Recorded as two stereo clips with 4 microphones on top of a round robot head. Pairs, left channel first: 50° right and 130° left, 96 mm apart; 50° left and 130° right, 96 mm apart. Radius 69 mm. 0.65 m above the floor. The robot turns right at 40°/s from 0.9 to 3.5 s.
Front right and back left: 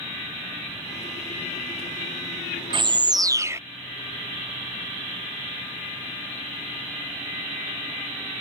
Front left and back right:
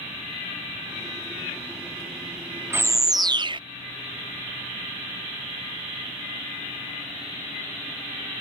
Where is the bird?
160° left; by 3.6 s 165° right.